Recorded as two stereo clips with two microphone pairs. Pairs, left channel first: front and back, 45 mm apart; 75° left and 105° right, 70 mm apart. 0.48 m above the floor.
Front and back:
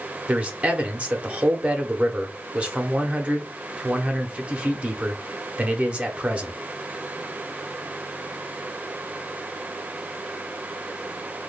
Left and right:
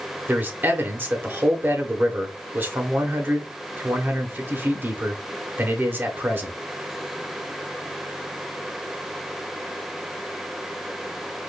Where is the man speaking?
135° right, 1.0 m.